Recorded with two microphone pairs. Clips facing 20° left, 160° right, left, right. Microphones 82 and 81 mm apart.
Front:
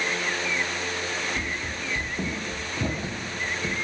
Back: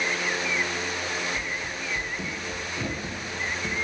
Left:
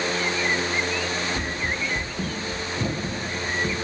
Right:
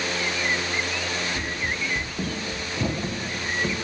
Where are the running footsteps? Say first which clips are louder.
Front 1 dB, left 1 dB; 50° left, 0.6 m; by 3.9 s 45° right, 1.9 m.